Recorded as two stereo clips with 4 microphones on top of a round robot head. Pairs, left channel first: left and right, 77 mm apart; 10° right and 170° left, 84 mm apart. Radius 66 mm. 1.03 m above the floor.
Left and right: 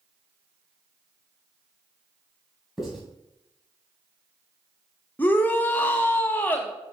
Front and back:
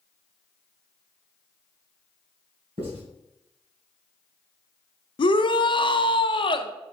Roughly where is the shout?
Ahead.